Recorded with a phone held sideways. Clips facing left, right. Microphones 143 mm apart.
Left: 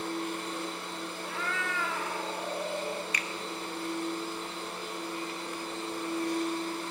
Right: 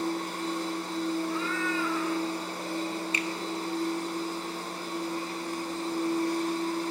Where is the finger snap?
25° right (ahead or behind), 0.9 m.